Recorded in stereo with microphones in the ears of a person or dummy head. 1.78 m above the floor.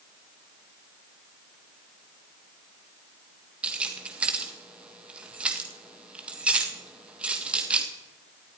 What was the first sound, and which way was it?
Keys jangling, 5° right (ahead or behind).